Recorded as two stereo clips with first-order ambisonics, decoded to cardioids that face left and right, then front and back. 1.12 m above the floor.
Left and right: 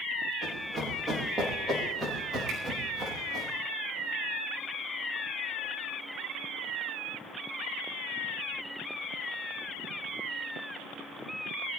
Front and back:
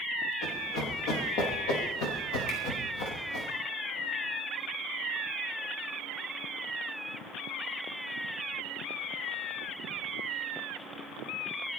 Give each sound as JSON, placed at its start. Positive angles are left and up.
{"t": 0.4, "sound": "running footsteps", "azimuth_deg": 10, "distance_m": 7.0}
{"t": 2.5, "sound": "a finger snap", "azimuth_deg": -25, "distance_m": 9.0}